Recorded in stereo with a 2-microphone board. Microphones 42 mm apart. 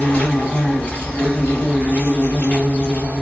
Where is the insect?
35° left (ahead or behind), 1.2 m.